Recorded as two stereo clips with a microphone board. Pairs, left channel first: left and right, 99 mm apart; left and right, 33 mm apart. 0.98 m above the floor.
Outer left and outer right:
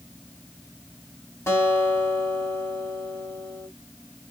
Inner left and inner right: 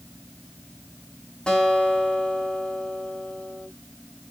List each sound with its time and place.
1.5 s a guitar: 25° left (ahead or behind), 2.5 m